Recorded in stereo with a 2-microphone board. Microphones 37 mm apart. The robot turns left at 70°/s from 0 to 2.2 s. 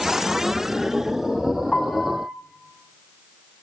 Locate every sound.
1.7 s a piano: 35° left, 1.1 m; by 2.3 s straight ahead, 1.1 m